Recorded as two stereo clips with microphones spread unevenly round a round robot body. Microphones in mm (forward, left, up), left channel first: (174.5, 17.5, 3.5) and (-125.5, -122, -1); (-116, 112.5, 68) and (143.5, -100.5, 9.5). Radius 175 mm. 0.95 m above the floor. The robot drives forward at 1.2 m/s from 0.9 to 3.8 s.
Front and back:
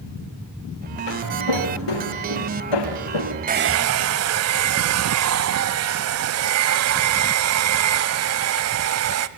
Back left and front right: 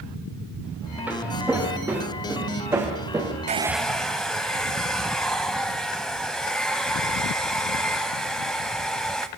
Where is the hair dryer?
105° right, 0.8 m; by 9.3 s 145° right, 1.0 m.